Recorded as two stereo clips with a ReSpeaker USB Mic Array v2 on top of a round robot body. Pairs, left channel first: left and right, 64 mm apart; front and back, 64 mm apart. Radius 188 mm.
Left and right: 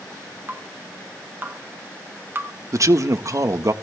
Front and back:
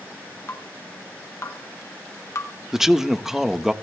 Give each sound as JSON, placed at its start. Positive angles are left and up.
{"t": 0.5, "sound": "dripping", "azimuth_deg": -40, "distance_m": 2.0}
{"t": 2.7, "sound": "a man speaking", "azimuth_deg": -95, "distance_m": 1.4}